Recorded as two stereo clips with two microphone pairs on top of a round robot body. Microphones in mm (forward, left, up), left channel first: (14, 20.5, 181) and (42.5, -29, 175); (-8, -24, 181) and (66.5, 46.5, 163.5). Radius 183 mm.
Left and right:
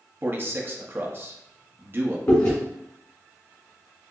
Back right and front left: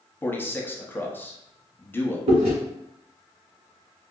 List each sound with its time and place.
0.2 s a man speaking: 60° right, 0.9 m
2.3 s chewing: 65° left, 1.4 m